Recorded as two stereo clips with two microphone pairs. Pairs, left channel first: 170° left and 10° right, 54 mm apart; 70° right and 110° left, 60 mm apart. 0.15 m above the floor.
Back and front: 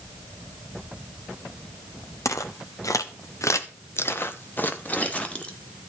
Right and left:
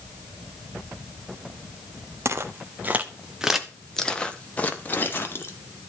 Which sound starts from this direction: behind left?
Footsteps, at 2.2 s.